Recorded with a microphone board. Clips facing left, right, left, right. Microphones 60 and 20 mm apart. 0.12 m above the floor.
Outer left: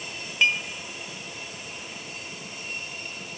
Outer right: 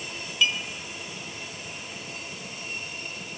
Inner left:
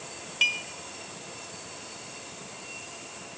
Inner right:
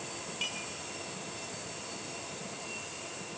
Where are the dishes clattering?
50° left (ahead or behind), 2.0 m.